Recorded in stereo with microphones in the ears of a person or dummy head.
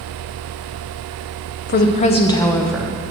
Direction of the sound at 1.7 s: 50° left (ahead or behind).